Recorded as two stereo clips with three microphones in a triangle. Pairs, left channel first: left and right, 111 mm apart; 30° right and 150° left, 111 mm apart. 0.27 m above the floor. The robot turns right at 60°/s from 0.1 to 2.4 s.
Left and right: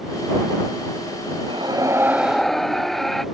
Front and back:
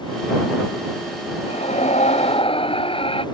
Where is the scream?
55° right; by 3.2 s straight ahead.